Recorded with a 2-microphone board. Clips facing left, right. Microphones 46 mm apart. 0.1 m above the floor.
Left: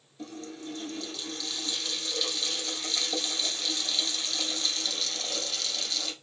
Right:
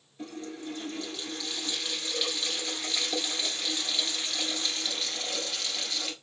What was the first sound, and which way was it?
A running tap, 25° right (ahead or behind).